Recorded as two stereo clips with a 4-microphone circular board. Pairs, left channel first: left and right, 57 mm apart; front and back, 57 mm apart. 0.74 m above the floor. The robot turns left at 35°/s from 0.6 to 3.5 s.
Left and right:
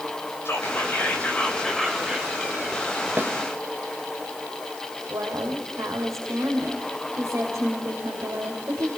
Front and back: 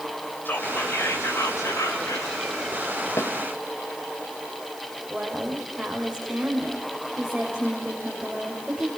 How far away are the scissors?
No scissors in this recording.